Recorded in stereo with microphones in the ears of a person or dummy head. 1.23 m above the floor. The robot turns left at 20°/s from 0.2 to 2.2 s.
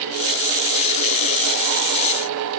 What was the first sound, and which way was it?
Only background noise.